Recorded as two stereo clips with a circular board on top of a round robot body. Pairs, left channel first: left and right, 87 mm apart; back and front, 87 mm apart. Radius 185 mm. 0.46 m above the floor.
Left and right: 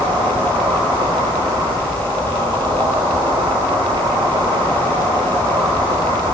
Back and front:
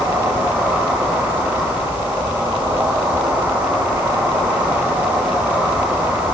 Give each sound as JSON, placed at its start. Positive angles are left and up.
{"t": 0.0, "sound": "an insect", "azimuth_deg": -75, "distance_m": 4.5}